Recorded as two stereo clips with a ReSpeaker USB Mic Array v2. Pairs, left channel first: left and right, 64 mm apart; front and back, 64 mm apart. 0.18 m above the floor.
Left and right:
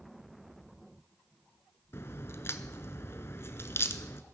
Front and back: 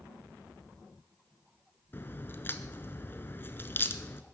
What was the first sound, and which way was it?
A crack, 50° left.